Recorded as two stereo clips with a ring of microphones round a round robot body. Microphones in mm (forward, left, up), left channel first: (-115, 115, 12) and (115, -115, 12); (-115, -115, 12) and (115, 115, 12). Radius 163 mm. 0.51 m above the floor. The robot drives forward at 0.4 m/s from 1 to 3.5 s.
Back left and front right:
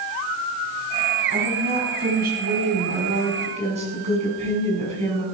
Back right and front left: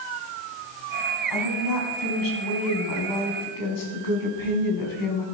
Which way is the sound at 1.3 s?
105° right.